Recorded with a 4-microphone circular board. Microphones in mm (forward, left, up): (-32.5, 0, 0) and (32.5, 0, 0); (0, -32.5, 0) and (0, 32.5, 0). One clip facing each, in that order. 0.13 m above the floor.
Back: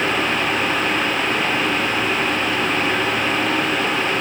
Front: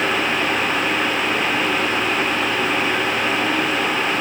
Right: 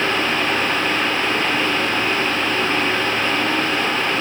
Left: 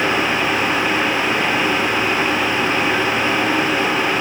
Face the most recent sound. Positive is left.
No sound to turn to.